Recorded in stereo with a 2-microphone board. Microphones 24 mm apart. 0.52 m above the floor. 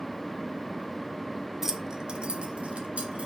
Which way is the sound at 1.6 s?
15° right (ahead or behind).